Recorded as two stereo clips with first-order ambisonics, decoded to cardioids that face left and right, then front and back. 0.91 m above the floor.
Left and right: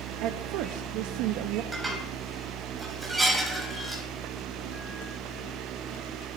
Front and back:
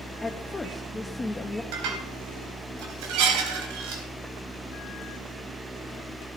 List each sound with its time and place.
0.2 s a woman speaking: 75° right, 0.7 m
1.7 s dishes clattering: 175° right, 3.5 m